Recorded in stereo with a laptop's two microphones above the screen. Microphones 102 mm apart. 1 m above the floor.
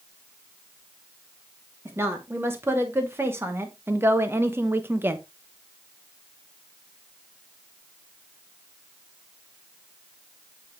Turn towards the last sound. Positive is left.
turn(degrees=-20)  # may be behind; listen again after turning